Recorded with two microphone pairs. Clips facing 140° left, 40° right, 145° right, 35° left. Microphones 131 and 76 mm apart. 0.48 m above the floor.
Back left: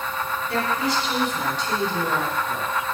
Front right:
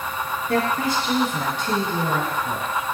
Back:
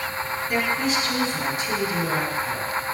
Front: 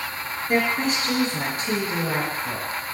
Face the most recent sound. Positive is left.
turn(degrees=-15)